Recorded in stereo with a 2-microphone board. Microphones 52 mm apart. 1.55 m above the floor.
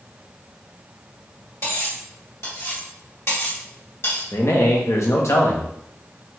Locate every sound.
1.6 s cutlery clinking: 60° left (ahead or behind), 1.7 m
4.3 s a man speaking: 65° left (ahead or behind), 0.7 m